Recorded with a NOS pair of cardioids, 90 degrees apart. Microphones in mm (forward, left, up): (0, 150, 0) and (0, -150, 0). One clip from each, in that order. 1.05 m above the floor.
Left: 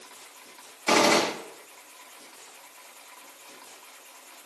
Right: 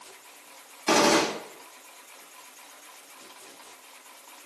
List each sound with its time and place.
0.9 s a gunshot: 5° right, 1.8 m